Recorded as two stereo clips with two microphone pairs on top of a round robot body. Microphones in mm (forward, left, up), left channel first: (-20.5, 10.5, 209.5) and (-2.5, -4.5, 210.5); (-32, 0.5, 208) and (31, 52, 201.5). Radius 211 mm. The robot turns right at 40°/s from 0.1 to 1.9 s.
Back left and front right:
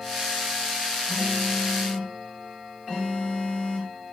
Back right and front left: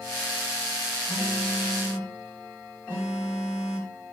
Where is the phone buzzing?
165° left, 2.5 m; by 3.9 s 160° right, 2.5 m.